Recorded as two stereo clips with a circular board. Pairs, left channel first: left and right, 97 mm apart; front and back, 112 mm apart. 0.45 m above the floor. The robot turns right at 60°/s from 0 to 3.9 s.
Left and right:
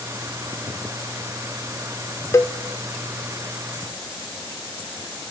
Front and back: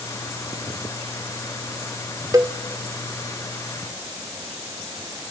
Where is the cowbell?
135° left, 1.2 m; by 2.6 s 145° left, 1.2 m.